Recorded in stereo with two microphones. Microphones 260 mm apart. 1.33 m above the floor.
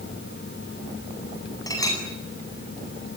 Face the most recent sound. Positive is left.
turn(degrees=15)  # may be behind; listen again after turning